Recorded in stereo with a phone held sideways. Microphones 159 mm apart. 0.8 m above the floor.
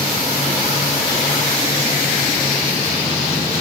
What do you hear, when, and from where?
Only background noise.